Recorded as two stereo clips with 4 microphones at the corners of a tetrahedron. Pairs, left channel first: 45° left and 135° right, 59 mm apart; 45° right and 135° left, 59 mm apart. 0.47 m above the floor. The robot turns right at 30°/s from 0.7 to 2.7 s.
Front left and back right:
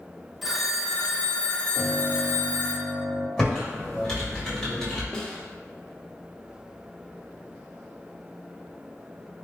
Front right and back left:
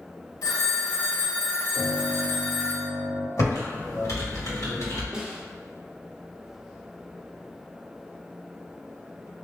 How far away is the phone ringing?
About 0.8 m.